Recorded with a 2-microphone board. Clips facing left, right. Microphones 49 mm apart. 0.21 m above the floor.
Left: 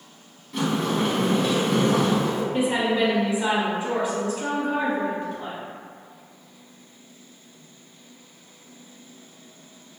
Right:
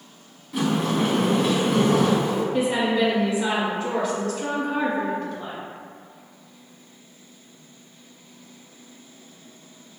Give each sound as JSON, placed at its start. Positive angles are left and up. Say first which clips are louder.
{"t": 0.5, "sound": "a sliding door", "louder": "right 1 dB", "side_deg": -10, "distance_m": 0.7}
{"t": 2.5, "sound": "a woman speaking", "louder": "even", "side_deg": 25, "distance_m": 1.2}